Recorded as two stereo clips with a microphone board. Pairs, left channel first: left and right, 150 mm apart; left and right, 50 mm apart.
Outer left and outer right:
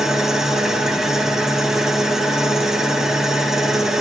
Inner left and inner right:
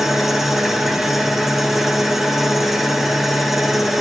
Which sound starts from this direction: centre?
An engine running, at 0.0 s.